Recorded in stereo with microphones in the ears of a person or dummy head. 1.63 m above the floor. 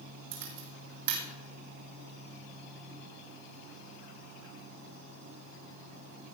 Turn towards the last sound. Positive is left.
turn(degrees=-70)  # may be behind; listen again after turning